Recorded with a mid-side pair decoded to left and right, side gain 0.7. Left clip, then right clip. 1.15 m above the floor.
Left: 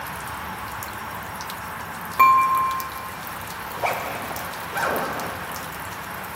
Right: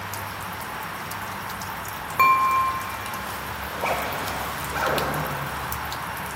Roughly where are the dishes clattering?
Ahead.